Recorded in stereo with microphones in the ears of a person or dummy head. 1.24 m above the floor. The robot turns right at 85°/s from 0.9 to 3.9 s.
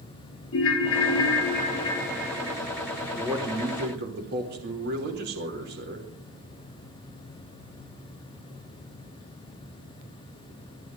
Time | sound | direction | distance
0.5 | a ringtone | 75° left | 1.5 m
3.1 | a man speaking | straight behind | 3 m